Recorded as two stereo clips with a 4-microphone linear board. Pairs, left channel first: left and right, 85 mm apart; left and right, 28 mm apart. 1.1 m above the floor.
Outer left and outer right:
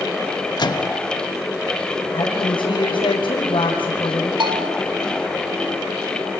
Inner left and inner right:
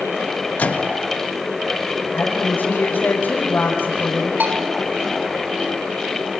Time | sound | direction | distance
0.6 | a microwave | 55° left (ahead or behind) | 1.3 m
2.1 | a woman speaking | 80° left | 5.5 m
4.4 | a bell | 75° right (ahead or behind) | 4.5 m